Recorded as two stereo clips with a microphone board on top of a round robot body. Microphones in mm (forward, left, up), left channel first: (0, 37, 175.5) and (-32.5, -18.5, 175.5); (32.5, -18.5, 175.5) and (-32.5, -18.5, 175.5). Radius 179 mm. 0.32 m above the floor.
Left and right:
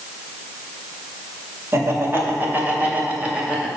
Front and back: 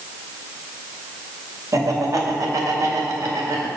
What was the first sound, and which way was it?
Laughter, 160° right.